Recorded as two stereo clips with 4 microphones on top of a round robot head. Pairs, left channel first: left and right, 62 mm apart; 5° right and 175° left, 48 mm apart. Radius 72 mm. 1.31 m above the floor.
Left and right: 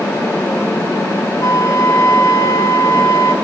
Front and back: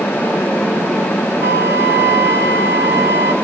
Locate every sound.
1.4 s a flute: 130° left, 1.4 m